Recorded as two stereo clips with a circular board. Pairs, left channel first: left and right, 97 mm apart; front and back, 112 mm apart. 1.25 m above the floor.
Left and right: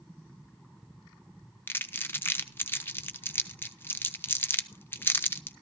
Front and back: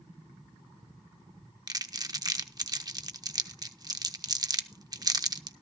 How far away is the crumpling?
About 0.7 m.